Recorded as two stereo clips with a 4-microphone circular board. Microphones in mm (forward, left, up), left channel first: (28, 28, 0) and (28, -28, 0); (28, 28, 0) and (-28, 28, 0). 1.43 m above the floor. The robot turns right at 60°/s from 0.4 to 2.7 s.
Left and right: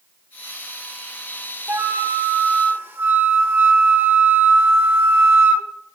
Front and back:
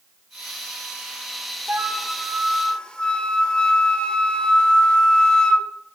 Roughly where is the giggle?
No giggle in this recording.